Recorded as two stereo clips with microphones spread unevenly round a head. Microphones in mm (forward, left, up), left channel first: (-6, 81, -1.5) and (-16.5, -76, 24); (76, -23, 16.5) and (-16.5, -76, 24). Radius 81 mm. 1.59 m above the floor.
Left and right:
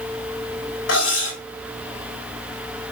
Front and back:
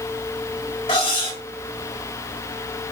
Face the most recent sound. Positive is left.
turn(degrees=90)